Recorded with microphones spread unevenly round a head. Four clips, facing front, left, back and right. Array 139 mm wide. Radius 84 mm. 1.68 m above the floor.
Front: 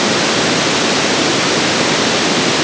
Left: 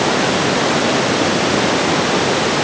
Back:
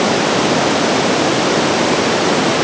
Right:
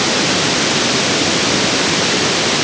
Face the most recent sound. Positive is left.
No sound to turn to.